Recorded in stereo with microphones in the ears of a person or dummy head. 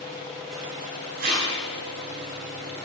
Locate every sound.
1.2 s tape being pulled: 45° right (ahead or behind), 7.5 m